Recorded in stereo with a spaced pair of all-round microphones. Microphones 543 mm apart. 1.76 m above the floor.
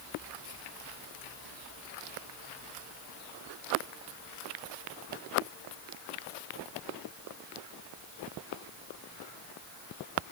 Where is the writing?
I don't hear writing.